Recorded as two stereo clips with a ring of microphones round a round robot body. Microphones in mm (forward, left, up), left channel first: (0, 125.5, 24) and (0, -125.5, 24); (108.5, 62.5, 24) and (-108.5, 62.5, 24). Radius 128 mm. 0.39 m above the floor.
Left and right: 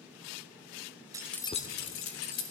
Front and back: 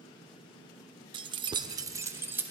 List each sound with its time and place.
1.1 s keys jangling: 145° right, 0.5 m; by 2.5 s 100° left, 1.0 m